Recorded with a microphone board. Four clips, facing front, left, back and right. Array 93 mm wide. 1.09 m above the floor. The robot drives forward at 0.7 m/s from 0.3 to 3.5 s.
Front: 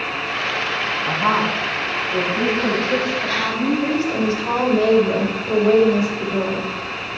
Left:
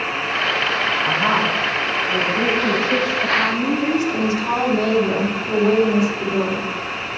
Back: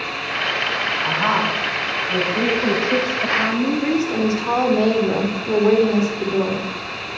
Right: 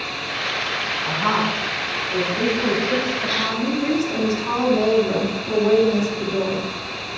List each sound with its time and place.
1.0 s a woman speaking: 165° left, 5 m; by 3.9 s 170° left, 7 m
3.7 s a woman speaking: 170° left, 2.5 m